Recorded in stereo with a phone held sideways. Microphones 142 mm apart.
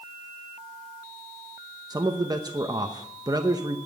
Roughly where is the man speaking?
Right.